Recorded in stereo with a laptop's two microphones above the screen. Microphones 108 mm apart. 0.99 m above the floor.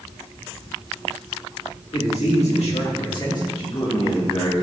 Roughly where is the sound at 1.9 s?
Left.